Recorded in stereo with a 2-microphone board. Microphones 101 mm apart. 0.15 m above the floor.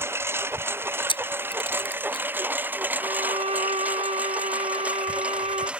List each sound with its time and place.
0.0 s a lawn mower: 25° right (ahead or behind); by 5.8 s 10° right (ahead or behind)
1.1 s a camera shutter: 55° left (ahead or behind)
3.0 s a violin: 85° right